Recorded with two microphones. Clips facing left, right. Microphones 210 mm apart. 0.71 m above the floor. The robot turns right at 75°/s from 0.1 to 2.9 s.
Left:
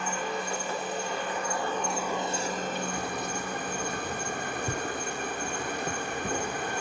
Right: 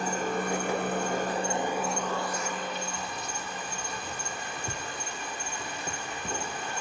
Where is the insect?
135° right, 3.5 m; by 6.8 s 75° left, 3.5 m.